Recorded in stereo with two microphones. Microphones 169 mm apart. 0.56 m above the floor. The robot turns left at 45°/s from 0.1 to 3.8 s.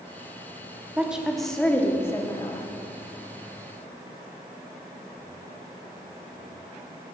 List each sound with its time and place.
1.0 s a woman speaking: 10° right (ahead or behind), 0.7 m; by 2.7 s 25° left (ahead or behind), 0.7 m